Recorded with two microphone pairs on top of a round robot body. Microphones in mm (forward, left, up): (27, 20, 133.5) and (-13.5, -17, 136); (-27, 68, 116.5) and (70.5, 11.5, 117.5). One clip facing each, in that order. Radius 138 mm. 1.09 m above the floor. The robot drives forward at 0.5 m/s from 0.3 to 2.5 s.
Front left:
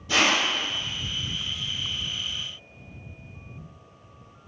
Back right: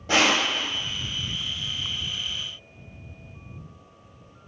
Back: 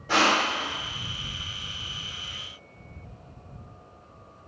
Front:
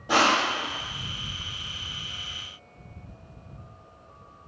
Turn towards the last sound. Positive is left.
turn(degrees=-130)